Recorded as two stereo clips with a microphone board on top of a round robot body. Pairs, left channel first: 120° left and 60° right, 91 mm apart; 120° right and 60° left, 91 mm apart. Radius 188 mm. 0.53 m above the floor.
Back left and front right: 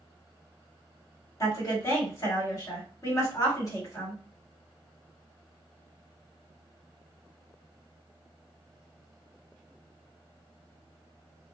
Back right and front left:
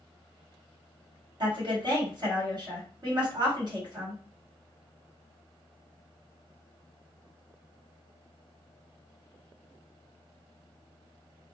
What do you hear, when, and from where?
1.4 s a woman speaking: 75° left, 1.9 m